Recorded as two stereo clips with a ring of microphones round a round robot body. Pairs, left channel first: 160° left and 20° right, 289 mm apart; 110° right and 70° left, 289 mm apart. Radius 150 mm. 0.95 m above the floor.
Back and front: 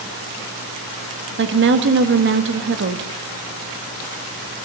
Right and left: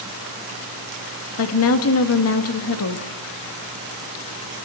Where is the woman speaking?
75° right, 1.6 m.